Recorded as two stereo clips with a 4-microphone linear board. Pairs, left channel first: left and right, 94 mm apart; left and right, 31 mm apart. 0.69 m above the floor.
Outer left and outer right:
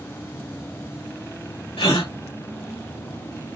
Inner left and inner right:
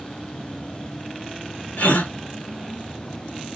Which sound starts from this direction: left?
A gasp, at 1.8 s.